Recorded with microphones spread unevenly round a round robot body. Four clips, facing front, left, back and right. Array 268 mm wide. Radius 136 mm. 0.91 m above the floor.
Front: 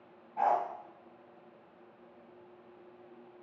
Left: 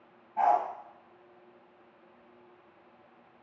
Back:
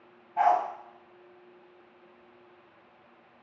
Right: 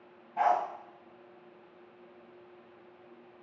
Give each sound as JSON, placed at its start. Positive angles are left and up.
{"t": 0.4, "sound": "a dog barking", "azimuth_deg": -140, "distance_m": 1.3}